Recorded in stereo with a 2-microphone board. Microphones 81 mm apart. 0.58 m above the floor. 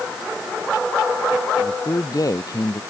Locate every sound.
1.6 s a man speaking: 50° left (ahead or behind)